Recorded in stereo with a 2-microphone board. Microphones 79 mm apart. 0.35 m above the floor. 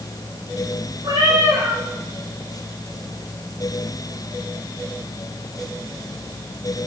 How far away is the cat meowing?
About 4 m.